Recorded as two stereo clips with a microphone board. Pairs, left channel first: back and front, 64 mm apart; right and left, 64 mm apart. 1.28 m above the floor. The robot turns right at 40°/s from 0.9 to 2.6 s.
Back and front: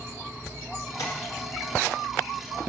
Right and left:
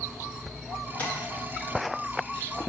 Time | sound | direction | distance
1.0 | tapping | 155° right | 1.9 m